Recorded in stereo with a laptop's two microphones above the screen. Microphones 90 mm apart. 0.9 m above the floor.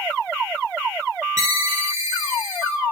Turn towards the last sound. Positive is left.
turn(degrees=-35)  # may be behind; listen again after turning